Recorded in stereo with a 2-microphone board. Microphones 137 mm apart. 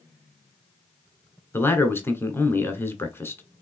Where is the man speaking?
15° left (ahead or behind), 1.2 m.